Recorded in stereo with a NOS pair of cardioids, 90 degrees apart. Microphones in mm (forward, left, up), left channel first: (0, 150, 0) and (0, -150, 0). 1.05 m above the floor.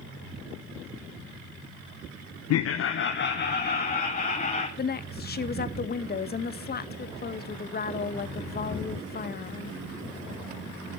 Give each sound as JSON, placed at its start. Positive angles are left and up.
{"t": 2.5, "sound": "laughter", "azimuth_deg": 55, "distance_m": 0.6}
{"t": 4.8, "sound": "a woman speaking", "azimuth_deg": 30, "distance_m": 0.9}